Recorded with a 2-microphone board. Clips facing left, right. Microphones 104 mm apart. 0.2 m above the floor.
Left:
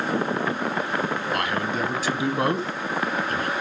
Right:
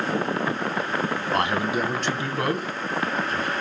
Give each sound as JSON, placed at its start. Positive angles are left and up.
{"t": 1.3, "sound": "a man speaking", "side_deg": -30, "distance_m": 1.5}